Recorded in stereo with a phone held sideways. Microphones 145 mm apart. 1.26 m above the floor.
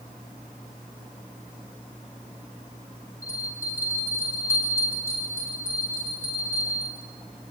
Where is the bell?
20° left (ahead or behind), 10 m.